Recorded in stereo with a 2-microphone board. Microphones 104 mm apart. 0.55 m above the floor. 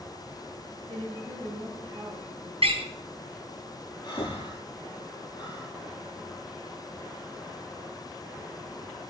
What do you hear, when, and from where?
0.9 s a woman speaking: 50° right (ahead or behind), 3.5 m
2.6 s a door slam: 70° right (ahead or behind), 4 m
4.0 s breathing: 45° left (ahead or behind), 7 m